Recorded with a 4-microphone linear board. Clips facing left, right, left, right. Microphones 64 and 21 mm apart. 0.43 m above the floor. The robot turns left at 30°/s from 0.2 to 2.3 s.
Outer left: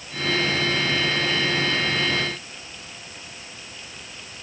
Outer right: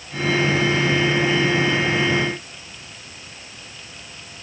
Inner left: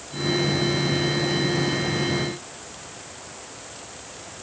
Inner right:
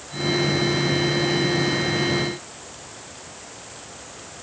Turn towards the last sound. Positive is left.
No sound to turn to.